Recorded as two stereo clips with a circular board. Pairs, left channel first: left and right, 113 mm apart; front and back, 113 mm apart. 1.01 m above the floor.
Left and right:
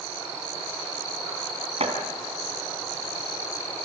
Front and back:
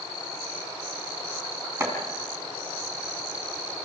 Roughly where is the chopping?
Behind right.